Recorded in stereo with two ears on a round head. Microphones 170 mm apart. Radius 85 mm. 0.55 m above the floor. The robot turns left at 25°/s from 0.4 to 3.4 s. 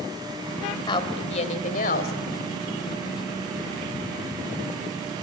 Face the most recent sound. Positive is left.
turn(degrees=90)